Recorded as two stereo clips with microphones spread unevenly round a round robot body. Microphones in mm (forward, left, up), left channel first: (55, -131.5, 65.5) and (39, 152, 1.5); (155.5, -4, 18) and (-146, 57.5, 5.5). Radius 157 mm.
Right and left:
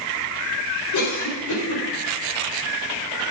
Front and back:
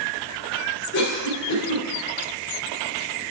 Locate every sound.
0.9 s a cough: 65° right, 4 m